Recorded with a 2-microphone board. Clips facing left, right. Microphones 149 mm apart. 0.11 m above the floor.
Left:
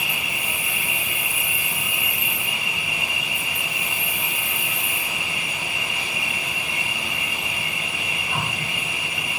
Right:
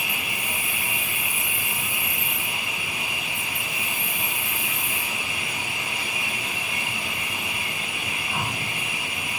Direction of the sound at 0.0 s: 80° left.